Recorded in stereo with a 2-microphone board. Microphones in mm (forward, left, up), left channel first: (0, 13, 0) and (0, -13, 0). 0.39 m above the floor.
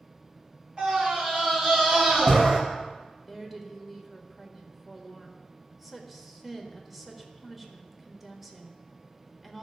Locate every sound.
0.8 s a scream: 30° right (ahead or behind), 5 m
3.3 s a woman speaking: 5° right (ahead or behind), 1.4 m